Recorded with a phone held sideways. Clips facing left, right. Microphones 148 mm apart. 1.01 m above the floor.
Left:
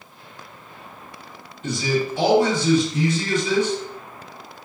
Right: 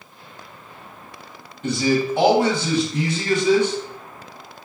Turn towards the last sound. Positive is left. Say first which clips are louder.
# right 3 dB
turn(degrees=-60)  # may be behind; listen again after turning